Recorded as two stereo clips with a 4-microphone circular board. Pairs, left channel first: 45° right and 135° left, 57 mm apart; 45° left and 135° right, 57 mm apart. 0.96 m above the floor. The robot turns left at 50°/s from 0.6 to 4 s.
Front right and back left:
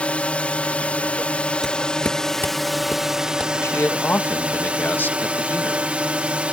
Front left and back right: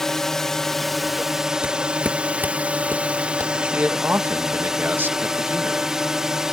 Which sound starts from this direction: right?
A man speaking, at 3.6 s.